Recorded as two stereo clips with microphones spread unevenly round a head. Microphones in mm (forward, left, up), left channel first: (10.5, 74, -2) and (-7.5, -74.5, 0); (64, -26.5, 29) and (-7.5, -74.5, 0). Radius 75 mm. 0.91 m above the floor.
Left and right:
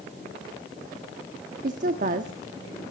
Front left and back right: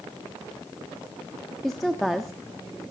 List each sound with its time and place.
1.6 s a woman speaking: 55° right, 1.3 m